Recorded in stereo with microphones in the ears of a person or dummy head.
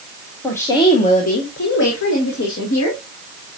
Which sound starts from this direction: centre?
A woman speaking, at 0.4 s.